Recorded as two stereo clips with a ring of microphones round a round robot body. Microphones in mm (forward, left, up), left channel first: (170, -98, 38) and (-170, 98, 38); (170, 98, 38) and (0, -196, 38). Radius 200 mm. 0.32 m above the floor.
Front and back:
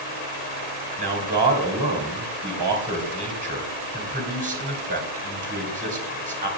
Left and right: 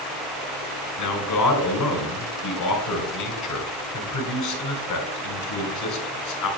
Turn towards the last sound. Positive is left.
turn(degrees=85)